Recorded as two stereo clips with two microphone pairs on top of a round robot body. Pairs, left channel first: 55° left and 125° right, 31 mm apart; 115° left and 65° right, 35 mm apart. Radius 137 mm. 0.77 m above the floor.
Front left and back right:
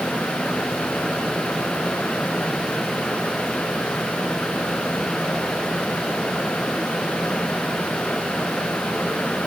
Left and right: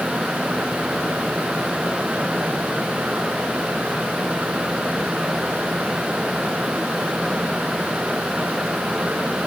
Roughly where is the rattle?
No rattle in this recording.